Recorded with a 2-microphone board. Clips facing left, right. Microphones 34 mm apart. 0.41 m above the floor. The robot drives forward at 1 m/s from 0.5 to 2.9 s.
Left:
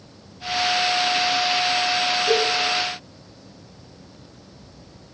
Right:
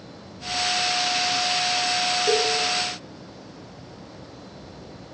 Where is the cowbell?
35° right (ahead or behind), 6.5 m.